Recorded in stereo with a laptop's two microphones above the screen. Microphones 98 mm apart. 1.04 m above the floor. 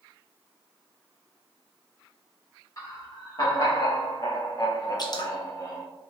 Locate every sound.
2.8 s laughter: 35° left (ahead or behind), 2.0 m; by 5.8 s 30° left (ahead or behind), 0.9 m
5.0 s dripping: 45° left (ahead or behind), 0.8 m